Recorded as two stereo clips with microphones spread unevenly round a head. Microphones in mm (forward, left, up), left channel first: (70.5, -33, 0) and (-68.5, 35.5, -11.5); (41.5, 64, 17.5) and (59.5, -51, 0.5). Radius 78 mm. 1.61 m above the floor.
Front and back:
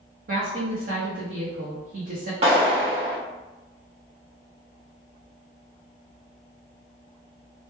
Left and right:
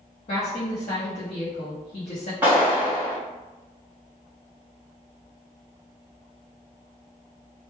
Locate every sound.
0.3 s a woman speaking: 125° left, 0.6 m
2.4 s a clap: 165° right, 0.9 m